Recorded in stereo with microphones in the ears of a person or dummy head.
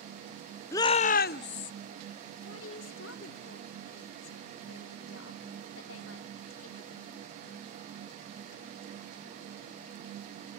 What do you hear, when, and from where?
0.7 s a shout: 15° left (ahead or behind), 0.6 m; by 1.7 s 65° left (ahead or behind), 1.2 m
2.4 s a woman speaking: 80° left, 3.5 m